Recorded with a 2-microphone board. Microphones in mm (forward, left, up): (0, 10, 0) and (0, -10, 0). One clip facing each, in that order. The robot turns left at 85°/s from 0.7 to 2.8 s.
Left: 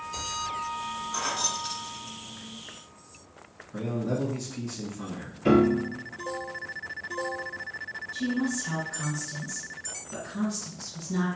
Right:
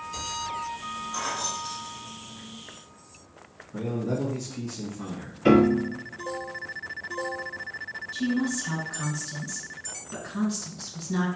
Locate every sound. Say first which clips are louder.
1.1 s keys jangling: left 1 dB; 10° left (ahead or behind), 0.9 m; by 2.5 s 30° left (ahead or behind), 0.9 m
3.7 s a man speaking: right 1 dB; 10° left (ahead or behind), 1.1 m
5.5 s a piano: right 2 dB; 35° right (ahead or behind), 0.6 m
8.1 s a woman speaking: right 2 dB; 30° right (ahead or behind), 1.9 m